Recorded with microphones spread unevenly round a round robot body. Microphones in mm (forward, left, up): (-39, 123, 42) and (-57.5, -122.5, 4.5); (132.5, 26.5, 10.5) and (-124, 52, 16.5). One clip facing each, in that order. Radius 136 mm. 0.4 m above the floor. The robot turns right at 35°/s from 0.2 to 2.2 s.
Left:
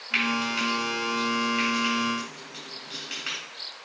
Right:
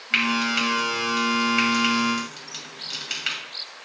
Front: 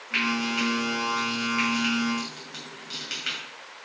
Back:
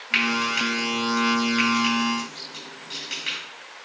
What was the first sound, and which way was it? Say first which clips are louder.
Frying: right 3 dB, even; 150° right.